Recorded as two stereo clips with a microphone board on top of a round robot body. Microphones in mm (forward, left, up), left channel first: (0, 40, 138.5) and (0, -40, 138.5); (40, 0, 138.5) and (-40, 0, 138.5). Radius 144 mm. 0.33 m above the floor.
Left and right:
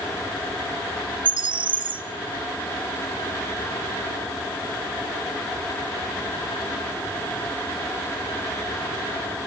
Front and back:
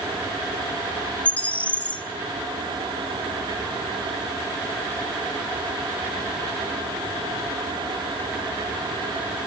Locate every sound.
1.2 s a bird: 75° right, 0.7 m